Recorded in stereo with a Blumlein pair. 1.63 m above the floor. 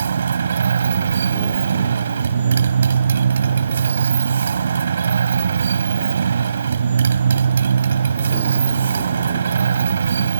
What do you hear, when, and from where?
0.0 s a motorcycle: 70° right